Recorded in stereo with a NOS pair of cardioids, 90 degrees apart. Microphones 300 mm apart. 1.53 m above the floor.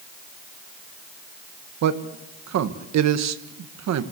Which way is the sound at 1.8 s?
60° right.